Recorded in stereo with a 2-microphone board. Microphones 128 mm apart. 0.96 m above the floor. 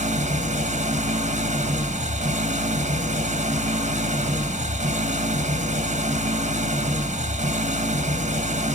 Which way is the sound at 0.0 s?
65° right (ahead or behind).